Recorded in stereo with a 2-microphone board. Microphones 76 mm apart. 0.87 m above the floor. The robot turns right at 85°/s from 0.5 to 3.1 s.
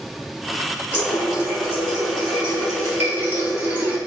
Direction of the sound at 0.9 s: 150° left.